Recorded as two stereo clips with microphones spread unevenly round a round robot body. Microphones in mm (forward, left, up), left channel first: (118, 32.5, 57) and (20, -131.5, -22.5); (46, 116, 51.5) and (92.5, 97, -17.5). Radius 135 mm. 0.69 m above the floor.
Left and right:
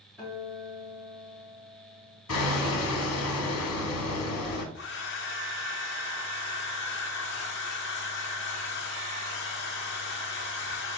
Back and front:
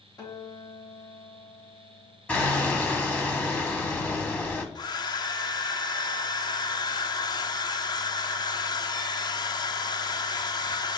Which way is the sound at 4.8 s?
110° left.